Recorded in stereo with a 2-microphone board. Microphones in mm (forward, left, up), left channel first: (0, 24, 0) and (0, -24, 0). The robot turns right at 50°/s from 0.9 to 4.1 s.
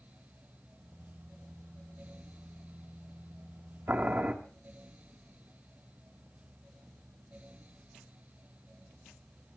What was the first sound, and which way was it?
Boiling, 45° right (ahead or behind).